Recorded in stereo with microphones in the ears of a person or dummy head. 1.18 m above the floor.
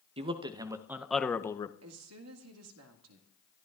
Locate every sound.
0.2 s a man speaking: 30° right (ahead or behind), 0.9 m; by 1.7 s 30° left (ahead or behind), 0.6 m
1.8 s a woman speaking: 80° right, 1.8 m